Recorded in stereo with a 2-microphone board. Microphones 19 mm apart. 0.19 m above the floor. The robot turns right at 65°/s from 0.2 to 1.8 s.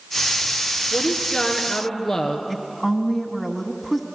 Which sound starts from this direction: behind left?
A woman speaking, at 0.9 s.